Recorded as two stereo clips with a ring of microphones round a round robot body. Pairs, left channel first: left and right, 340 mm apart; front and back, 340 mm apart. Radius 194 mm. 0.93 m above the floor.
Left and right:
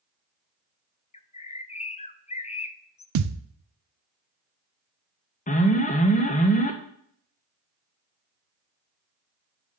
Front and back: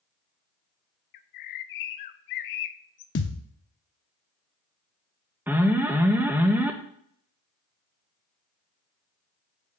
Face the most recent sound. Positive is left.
turn(degrees=105)